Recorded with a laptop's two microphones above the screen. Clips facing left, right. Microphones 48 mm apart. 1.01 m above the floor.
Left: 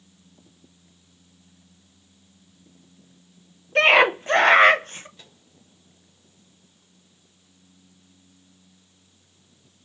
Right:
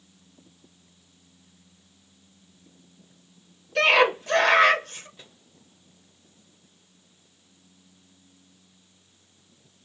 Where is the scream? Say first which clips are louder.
Left 3 dB; 35° left (ahead or behind), 0.7 m.